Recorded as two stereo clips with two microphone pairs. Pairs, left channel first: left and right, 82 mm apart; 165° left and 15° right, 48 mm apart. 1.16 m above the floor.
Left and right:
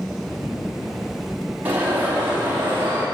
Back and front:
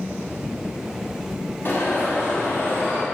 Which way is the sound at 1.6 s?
155° right.